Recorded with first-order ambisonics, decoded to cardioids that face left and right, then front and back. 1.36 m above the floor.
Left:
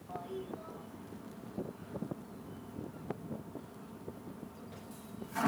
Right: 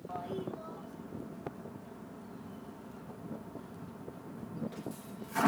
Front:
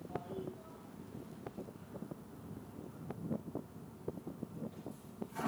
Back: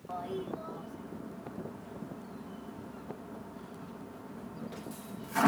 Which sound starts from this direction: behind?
A toilet flushing, at 0.1 s.